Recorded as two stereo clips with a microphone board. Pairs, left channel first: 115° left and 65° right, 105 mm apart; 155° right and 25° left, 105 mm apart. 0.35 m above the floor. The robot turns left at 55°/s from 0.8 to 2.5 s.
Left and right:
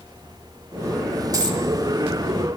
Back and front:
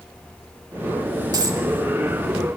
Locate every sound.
1.3 s a dropped coin: 20° right, 1.1 m; by 1.6 s 35° right, 1.1 m